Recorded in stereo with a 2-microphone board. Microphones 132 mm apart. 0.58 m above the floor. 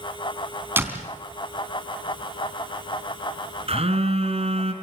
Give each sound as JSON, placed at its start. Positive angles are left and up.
{"t": 0.8, "sound": "a door slam", "side_deg": -15, "distance_m": 3.5}
{"t": 3.7, "sound": "a phone buzzing", "side_deg": -50, "distance_m": 3.0}